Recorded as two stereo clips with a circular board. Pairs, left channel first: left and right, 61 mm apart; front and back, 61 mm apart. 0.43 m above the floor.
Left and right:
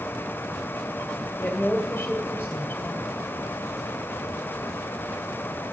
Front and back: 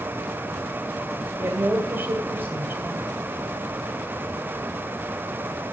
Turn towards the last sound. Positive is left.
turn(degrees=150)